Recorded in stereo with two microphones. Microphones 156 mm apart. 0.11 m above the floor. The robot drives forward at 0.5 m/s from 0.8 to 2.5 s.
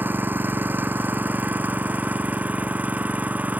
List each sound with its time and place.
0.0 s an engine running: 10° right (ahead or behind)